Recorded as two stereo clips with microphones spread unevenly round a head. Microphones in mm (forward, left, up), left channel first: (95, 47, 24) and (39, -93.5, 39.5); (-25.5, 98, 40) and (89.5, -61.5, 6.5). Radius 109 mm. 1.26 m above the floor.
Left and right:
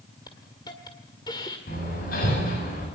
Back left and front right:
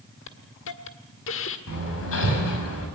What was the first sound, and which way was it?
A hiss, 140° left.